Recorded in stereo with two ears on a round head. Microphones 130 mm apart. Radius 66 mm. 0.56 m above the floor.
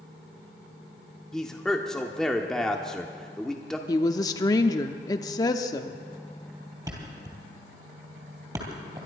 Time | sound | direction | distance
1.3 | a man speaking | 5° left (ahead or behind) | 0.9 m
3.9 | a woman speaking | 25° left (ahead or behind) | 0.7 m
6.9 | a thud | 25° right (ahead or behind) | 2.5 m